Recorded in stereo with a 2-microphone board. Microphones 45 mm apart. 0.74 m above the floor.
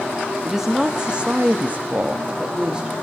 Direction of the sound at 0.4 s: 10° right (ahead or behind).